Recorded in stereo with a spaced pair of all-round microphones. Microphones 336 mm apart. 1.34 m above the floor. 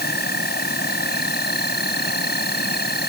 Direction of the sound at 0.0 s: 30° left (ahead or behind).